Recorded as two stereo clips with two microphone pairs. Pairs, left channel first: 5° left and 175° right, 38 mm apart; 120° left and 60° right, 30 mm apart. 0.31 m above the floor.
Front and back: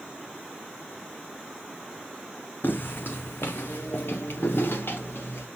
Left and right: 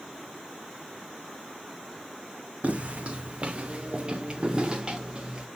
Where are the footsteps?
25° right, 0.7 m; by 5.5 s 5° left, 2 m.